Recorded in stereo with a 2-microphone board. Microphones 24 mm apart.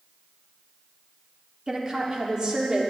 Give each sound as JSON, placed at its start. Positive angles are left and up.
{"t": 1.7, "sound": "a woman speaking", "side_deg": -30, "distance_m": 1.1}